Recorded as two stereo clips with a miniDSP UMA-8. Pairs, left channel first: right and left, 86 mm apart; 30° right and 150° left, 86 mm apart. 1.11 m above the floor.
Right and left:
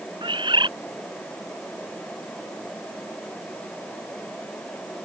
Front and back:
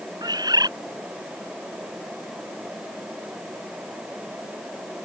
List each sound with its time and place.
0.2 s a bird: 110° left